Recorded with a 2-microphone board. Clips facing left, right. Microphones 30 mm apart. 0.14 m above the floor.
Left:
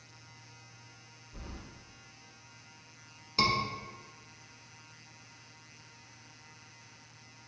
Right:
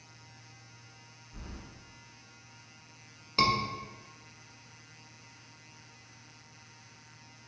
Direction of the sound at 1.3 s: 25° left (ahead or behind).